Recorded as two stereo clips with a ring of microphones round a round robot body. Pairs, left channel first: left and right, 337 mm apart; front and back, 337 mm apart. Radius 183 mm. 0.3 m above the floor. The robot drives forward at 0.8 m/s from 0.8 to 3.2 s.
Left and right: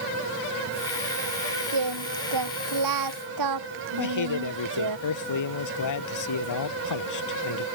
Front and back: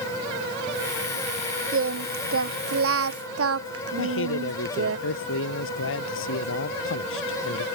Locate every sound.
1.7 s singing: 130° right
4.0 s a man speaking: 60° left